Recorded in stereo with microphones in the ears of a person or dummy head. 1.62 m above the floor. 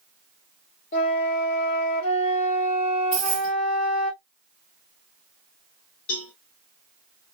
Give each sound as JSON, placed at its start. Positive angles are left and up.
{"t": 0.9, "sound": "a flute", "side_deg": 50, "distance_m": 1.4}
{"t": 3.1, "sound": "keys jangling", "side_deg": 50, "distance_m": 1.8}
{"t": 6.1, "sound": "a cowbell", "side_deg": 60, "distance_m": 1.1}